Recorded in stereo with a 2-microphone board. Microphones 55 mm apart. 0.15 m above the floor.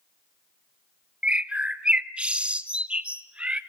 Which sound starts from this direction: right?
A bird, at 1.2 s.